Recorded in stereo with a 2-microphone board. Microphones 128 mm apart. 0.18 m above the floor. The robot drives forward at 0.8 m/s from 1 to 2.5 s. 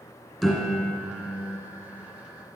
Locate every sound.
0.4 s a piano: centre (ahead or behind), 2 m